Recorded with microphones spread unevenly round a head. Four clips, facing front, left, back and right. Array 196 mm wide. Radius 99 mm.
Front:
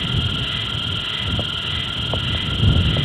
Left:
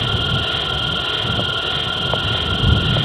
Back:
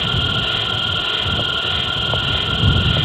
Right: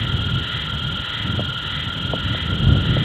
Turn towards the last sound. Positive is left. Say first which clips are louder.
# left 4 dB, back 4 dB
turn(degrees=120)